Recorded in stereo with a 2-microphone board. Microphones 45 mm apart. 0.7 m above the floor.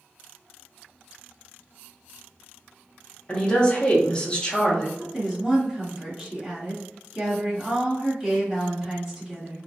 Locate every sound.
3.3 s a woman speaking: 20° left (ahead or behind), 0.7 m
5.0 s a woman speaking: 5° right (ahead or behind), 1.3 m